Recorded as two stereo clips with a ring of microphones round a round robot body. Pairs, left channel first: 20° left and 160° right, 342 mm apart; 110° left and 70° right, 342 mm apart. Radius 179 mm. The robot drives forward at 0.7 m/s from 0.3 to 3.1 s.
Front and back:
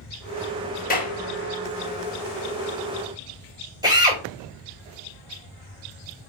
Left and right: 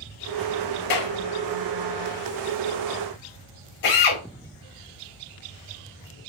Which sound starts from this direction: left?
A clap, at 0.9 s.